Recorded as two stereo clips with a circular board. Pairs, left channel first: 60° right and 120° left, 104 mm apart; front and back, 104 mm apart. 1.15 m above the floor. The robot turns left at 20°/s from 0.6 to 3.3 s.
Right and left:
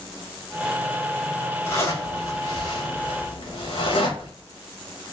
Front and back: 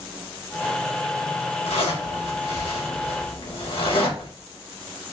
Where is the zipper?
5° left, 1.5 m; by 4.3 s 30° right, 1.5 m.